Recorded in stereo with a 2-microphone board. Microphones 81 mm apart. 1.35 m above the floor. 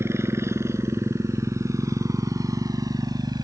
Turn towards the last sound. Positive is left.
turn(degrees=-60)  # may be behind; listen again after turning